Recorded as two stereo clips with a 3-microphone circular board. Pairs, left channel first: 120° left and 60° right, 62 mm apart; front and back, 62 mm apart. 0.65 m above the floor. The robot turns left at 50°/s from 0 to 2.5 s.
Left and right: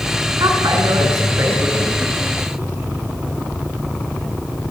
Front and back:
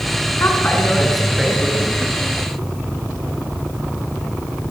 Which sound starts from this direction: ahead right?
A woman speaking, at 0.4 s.